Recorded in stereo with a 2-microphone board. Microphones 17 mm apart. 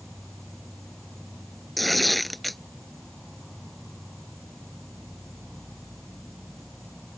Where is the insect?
15° left (ahead or behind).